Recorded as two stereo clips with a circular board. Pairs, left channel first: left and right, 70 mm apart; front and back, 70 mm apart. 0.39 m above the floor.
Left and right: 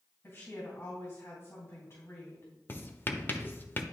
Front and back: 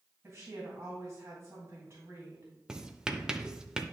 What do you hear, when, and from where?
0.2 s a woman speaking: 125° left, 2.5 m
2.7 s writing: 110° left, 0.5 m